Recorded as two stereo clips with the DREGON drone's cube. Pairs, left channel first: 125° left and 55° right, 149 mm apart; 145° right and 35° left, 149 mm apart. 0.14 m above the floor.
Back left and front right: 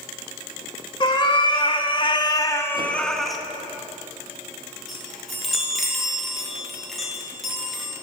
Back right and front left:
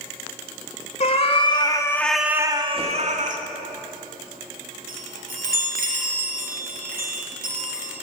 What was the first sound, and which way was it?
A cat meowing, straight behind.